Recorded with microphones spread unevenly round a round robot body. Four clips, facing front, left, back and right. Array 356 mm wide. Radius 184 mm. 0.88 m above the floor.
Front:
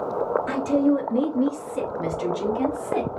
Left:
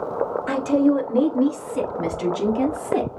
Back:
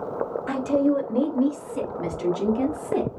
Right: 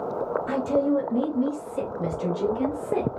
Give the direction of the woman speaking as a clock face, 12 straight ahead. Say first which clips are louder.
Left 5 dB, back 1 dB; 9 o'clock.